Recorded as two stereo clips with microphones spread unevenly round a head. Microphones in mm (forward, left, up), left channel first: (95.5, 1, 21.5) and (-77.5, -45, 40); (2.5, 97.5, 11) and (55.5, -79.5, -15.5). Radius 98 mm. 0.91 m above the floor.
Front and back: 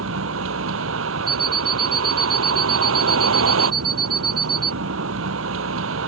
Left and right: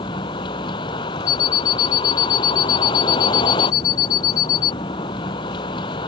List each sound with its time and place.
0.0 s a vehicle: 175° left
1.3 s an alarm clock: 125° left